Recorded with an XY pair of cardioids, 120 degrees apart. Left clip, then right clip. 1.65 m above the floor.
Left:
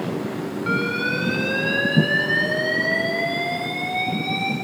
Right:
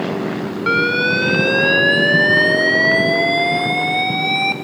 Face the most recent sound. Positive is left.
turn(degrees=-55)